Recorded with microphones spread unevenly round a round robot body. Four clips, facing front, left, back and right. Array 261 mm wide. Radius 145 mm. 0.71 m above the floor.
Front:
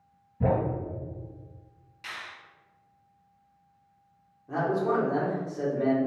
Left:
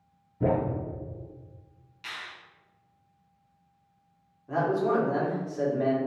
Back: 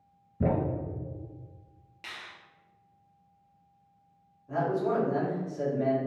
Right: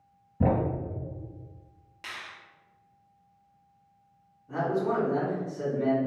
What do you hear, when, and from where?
0.4 s a thud: 130° right, 1.1 m
2.0 s a finger snap: 125° right, 0.8 m
4.5 s a man speaking: 50° left, 1.9 m